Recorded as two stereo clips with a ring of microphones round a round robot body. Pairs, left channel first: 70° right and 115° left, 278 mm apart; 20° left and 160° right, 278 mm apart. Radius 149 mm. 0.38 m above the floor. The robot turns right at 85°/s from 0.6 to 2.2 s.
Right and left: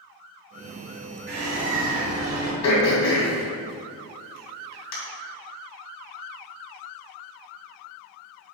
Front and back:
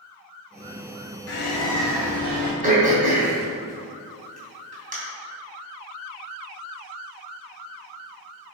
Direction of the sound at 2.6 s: 95° right.